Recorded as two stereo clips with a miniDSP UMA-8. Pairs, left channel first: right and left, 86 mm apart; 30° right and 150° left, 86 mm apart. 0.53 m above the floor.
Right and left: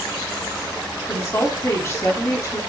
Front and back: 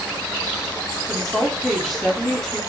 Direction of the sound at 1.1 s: 115° right.